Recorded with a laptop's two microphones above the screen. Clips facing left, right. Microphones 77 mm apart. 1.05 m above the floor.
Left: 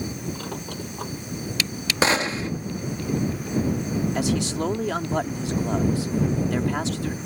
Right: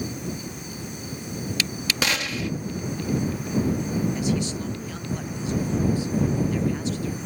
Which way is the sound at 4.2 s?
80° left.